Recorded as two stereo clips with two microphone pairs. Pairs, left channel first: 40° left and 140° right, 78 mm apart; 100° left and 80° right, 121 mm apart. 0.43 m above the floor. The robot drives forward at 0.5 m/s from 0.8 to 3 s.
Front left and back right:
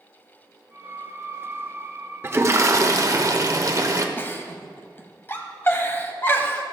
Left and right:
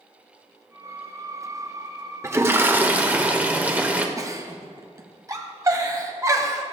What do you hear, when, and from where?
2.2 s a toilet flushing: 120° right, 0.6 m; by 4.1 s 150° right, 0.8 m
4.2 s a giggle: 20° right, 1.0 m